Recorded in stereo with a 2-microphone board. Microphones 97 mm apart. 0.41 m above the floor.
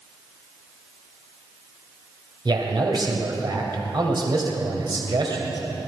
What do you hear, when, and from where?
2.5 s a man speaking: 55° right (ahead or behind), 2.5 m